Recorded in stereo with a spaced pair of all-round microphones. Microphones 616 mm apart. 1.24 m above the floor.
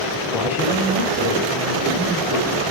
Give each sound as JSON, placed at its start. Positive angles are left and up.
{"t": 0.2, "sound": "a man speaking", "side_deg": 0, "distance_m": 9.5}